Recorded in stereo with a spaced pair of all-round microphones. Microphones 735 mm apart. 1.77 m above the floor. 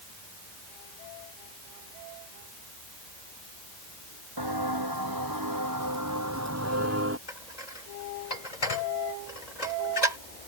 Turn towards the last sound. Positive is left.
turn(degrees=65)  # may be behind; listen again after turning